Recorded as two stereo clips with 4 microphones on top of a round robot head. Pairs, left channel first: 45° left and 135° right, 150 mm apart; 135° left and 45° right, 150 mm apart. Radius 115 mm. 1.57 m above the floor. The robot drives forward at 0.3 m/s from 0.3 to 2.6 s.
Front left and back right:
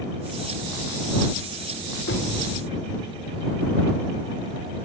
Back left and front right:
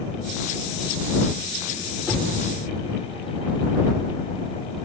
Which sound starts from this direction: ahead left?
Knocking, at 2.1 s.